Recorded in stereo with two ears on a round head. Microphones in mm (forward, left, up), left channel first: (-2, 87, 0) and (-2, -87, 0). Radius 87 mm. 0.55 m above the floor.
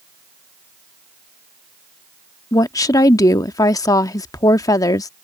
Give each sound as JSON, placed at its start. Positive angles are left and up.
{"t": 2.5, "sound": "a woman speaking", "side_deg": 20}